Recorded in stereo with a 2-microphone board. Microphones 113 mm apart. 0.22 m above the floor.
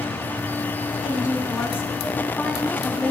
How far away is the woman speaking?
About 2 m.